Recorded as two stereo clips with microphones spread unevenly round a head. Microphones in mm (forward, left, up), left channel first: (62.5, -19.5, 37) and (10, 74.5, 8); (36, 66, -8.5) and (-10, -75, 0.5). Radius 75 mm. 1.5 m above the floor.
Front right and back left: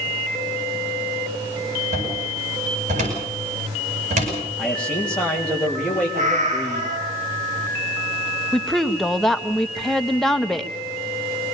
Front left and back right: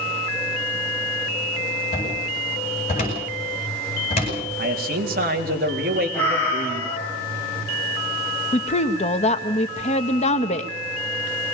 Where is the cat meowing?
155° left, 7 m.